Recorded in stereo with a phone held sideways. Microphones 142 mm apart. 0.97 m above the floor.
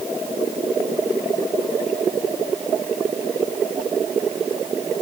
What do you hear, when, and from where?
Only background noise.